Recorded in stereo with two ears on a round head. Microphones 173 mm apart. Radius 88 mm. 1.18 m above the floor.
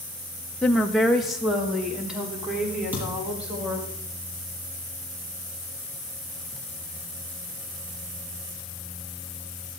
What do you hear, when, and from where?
0.6 s a woman speaking: 5° left (ahead or behind), 1.1 m; by 3.9 s 5° right (ahead or behind), 6 m
2.9 s a thud: 10° right (ahead or behind), 6 m